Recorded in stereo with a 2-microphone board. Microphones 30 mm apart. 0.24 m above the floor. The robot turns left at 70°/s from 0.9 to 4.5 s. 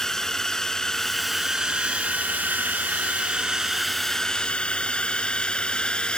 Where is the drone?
15° left (ahead or behind); by 6.2 s 35° left (ahead or behind).